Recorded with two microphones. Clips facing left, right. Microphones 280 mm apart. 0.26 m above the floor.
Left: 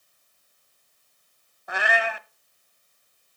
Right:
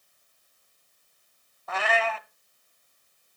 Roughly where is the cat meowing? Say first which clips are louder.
Even; centre.